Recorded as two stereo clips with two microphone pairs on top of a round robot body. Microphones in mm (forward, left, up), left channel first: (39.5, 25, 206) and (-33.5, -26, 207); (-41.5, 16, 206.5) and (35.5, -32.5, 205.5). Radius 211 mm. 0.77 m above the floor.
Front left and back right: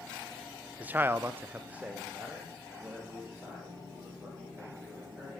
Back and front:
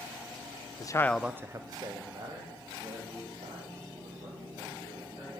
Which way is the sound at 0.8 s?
150° left.